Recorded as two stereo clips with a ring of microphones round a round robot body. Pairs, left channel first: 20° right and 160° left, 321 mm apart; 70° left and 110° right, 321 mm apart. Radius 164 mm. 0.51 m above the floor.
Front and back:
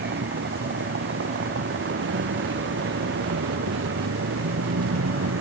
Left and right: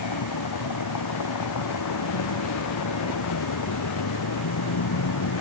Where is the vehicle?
100° left; by 5.4 s 105° left.